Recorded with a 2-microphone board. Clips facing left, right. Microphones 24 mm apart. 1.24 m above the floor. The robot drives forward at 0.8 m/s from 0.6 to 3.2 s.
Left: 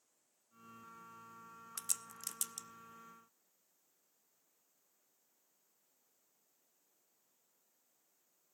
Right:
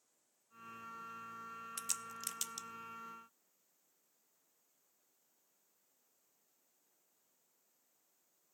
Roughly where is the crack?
Centre.